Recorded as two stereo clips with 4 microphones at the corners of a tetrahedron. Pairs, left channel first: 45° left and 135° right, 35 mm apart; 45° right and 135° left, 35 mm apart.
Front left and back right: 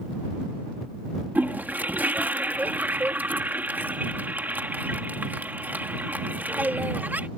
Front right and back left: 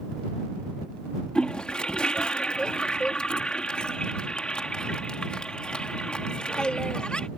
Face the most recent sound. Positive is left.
turn(degrees=-105)